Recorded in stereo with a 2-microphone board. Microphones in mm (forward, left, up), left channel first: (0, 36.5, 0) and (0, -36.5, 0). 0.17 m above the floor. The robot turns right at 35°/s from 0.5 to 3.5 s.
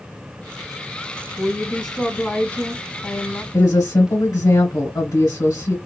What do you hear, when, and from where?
1.4 s a woman speaking: 5° left, 1.6 m; by 3.4 s 75° left, 1.6 m
3.5 s a woman speaking: 50° left (ahead or behind), 2.5 m